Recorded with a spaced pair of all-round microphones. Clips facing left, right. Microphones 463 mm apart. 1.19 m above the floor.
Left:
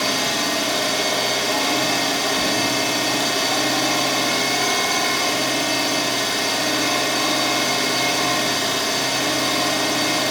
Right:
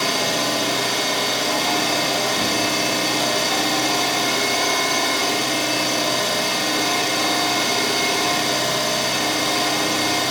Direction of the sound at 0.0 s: 55° right (ahead or behind).